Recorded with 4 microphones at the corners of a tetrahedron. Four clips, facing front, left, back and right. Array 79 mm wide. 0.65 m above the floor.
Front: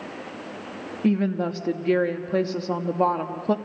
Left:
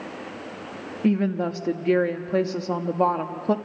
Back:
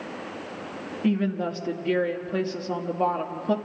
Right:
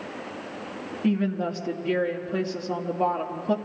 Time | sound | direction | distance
1.0 | a woman speaking | 55° left | 1.1 m